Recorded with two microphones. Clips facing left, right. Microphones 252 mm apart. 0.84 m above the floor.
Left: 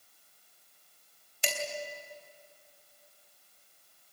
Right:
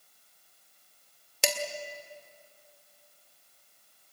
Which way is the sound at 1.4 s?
80° right.